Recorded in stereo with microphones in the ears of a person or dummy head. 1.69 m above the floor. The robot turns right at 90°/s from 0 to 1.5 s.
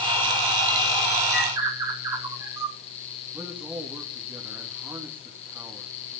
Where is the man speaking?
10° right (ahead or behind), 2.5 m.